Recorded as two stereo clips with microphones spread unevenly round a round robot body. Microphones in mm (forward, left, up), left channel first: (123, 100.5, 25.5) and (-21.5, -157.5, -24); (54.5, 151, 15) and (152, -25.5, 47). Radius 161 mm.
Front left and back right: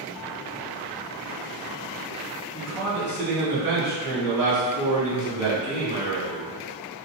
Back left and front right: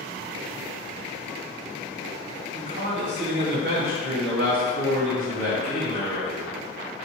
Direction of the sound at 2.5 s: 35° right.